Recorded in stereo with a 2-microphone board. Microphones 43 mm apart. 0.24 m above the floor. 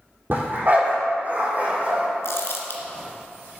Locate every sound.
0.3 s a dog barking: 45° right (ahead or behind), 4 m; by 2.1 s 35° right (ahead or behind), 5 m
2.2 s crumpling: 70° left (ahead or behind), 1.8 m